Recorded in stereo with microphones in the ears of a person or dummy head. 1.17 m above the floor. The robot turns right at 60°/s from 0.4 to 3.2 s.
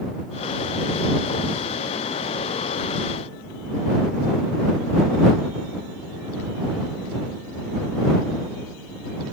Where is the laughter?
No laughter in this recording.